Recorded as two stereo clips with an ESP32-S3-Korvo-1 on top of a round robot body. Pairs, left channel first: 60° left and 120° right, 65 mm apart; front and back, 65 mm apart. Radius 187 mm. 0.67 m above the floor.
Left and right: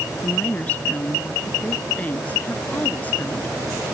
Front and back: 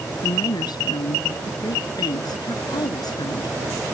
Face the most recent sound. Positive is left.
turn(degrees=-10)